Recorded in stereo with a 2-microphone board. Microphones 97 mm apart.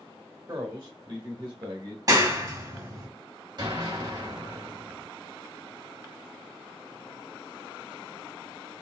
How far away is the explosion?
About 2 m.